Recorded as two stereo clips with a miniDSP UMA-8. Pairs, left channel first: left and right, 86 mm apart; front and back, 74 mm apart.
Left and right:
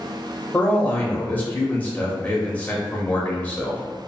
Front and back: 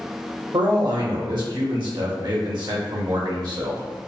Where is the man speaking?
160° left, 1.0 m.